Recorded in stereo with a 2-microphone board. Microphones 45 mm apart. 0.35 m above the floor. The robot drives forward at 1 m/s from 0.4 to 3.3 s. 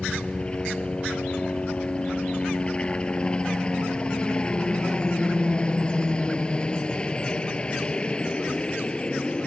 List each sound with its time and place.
0.0 s a helicopter: 25° left (ahead or behind)